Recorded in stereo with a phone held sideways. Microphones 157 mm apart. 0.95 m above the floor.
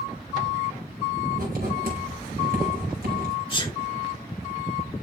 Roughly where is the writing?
Right.